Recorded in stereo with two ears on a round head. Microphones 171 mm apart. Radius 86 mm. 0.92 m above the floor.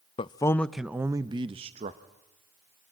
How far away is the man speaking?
About 0.5 m.